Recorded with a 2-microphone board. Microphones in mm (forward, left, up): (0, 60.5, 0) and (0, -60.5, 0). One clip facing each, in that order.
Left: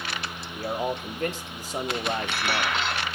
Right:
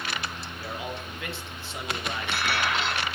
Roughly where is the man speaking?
Left.